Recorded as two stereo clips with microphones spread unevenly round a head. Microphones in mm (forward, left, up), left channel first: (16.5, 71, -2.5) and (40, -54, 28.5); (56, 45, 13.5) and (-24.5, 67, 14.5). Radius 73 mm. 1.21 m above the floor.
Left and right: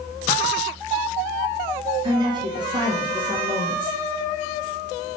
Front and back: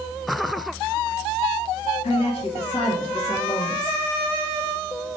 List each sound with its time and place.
2.0 s a woman speaking: 20° right, 1.2 m